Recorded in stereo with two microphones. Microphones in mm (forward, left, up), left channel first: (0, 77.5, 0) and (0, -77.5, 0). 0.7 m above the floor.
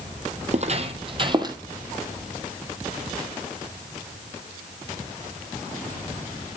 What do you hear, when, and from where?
0.5 s footsteps: 50° right (ahead or behind), 1.1 m; by 1.6 s 25° right (ahead or behind), 1.1 m